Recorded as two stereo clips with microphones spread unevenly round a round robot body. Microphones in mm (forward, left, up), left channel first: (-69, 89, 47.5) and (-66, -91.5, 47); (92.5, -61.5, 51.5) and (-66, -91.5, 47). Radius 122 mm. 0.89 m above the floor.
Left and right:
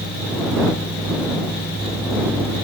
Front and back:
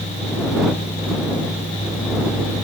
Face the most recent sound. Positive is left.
No sound to turn to.